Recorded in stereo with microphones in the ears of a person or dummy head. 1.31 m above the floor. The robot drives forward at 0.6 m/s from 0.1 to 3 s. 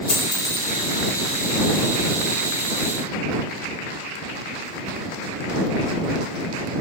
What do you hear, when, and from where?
0.1 s a dropped coin: 40° left (ahead or behind), 1.7 m; by 0.7 s 45° left (ahead or behind), 1.5 m